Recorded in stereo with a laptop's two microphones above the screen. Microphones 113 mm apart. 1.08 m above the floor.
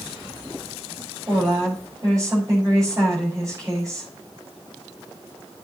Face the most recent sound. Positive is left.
turn(degrees=-30)  # may be behind; listen again after turning